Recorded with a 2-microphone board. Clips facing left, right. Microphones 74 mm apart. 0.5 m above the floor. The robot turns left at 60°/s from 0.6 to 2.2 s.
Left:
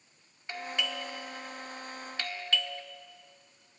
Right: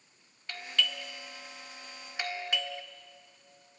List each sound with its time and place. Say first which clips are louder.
0.5 s a doorbell: even; 20° left (ahead or behind), 1.3 m; by 2.8 s 15° right (ahead or behind), 1.3 m